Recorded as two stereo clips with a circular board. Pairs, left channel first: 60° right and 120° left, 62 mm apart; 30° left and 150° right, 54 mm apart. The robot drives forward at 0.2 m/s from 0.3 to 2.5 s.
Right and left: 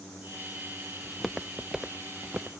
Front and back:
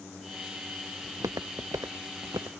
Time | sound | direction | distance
1.0 | footsteps | 145° right | ?